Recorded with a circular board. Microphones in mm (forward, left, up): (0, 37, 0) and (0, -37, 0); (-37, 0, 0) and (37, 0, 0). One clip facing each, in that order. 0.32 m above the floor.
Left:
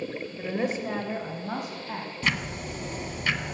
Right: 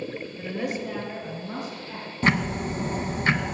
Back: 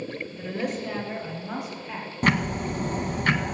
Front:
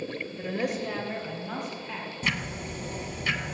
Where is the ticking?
145° right, 0.7 m.